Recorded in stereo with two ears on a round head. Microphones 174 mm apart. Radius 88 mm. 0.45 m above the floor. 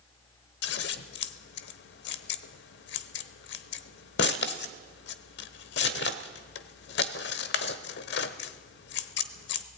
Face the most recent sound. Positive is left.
turn(degrees=65)  # may be behind; listen again after turning